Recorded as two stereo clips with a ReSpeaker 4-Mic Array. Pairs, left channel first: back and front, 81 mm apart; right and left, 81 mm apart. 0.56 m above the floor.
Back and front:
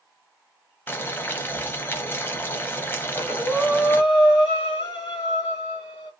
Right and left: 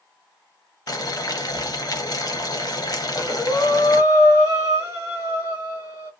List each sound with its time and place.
0.9 s boiling: 120° right, 0.6 m
3.0 s breathing: 70° right, 1.5 m